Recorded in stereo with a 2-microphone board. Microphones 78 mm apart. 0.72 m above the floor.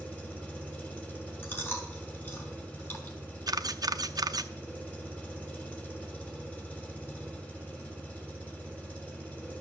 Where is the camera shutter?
55° right (ahead or behind), 0.6 m.